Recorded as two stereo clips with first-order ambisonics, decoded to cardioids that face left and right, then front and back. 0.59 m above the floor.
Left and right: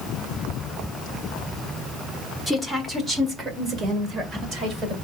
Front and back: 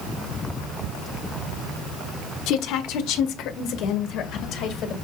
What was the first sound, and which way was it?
A woman speaking, 5° right.